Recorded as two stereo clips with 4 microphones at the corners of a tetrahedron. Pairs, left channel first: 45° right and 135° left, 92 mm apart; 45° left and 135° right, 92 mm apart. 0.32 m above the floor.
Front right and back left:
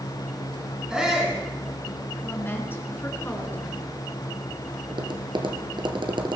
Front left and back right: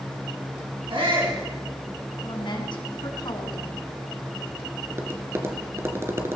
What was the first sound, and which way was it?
A shout, 145° right.